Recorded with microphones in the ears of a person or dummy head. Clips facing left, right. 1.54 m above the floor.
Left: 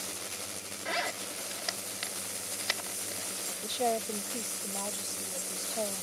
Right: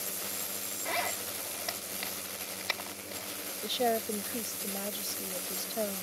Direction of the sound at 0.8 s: 10° left (ahead or behind).